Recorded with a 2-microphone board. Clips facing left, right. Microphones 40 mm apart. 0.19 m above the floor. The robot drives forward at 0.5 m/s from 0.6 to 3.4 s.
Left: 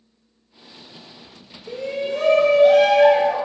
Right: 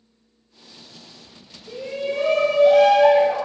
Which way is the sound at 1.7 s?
60° left (ahead or behind).